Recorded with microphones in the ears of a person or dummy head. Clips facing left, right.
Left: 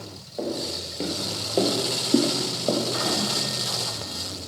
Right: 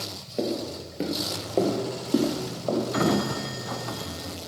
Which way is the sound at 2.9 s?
45° right (ahead or behind).